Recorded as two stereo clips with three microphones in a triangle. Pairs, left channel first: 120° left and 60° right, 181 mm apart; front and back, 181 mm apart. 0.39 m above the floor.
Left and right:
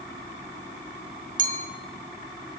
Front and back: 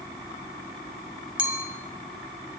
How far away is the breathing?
No breathing in this recording.